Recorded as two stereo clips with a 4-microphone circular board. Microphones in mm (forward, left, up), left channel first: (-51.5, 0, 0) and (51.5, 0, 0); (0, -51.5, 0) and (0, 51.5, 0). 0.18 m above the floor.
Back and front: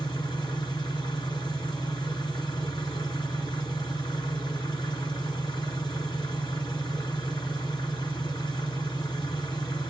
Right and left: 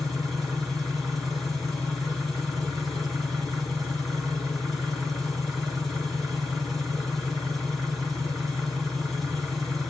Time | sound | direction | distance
0.0 | an engine running | straight behind | 1.7 m